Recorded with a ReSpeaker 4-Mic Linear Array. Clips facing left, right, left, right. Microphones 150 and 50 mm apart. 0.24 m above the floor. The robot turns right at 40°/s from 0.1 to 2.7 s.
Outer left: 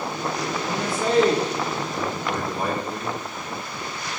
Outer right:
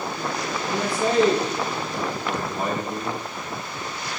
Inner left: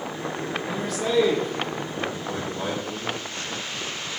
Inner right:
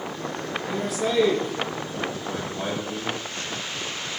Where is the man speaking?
10° right (ahead or behind), 1.0 m; by 3.2 s 25° right (ahead or behind), 1.0 m.